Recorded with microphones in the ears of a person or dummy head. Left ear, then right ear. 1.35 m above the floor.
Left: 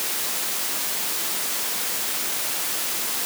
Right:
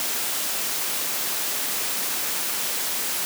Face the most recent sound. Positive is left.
No sound to turn to.